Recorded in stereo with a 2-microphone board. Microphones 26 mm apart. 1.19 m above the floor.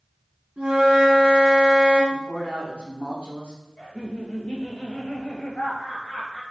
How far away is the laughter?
About 1.0 m.